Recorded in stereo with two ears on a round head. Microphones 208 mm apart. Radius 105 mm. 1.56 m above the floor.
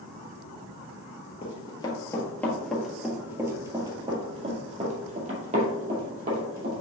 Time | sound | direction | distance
1.4 | running footsteps | 25° left (ahead or behind) | 1.6 m